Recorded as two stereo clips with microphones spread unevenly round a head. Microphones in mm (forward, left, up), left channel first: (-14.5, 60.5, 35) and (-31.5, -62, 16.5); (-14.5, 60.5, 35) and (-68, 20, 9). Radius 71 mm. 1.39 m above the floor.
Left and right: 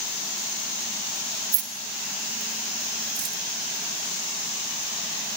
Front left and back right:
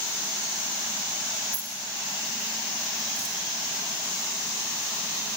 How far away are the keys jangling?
About 2 m.